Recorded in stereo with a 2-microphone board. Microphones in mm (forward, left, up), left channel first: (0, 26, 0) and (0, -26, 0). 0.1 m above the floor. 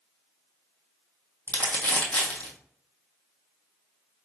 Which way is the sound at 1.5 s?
25° left (ahead or behind).